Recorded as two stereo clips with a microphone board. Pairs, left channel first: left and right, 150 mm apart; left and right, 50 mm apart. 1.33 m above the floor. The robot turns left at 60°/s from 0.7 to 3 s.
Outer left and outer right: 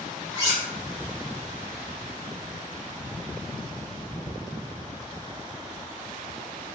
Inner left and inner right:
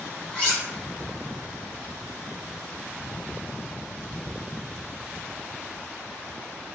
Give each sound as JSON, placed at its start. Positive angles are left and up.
{"t": 0.3, "sound": "cutlery clinking", "side_deg": 20, "distance_m": 0.9}